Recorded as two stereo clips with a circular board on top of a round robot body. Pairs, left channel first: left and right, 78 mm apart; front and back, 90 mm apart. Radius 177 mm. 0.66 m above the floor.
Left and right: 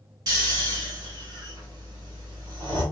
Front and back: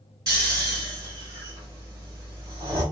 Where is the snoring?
130° right, 2 m.